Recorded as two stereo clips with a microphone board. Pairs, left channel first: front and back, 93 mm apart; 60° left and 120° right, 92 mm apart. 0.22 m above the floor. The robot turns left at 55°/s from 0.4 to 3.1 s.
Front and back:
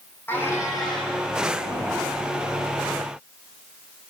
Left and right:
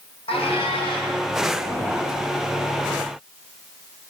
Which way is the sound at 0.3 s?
70° left.